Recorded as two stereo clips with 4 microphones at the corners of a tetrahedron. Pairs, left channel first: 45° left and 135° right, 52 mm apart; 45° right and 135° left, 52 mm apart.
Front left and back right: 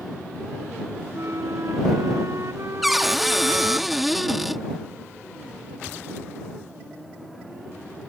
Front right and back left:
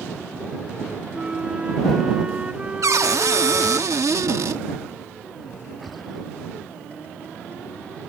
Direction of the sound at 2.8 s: 140° left.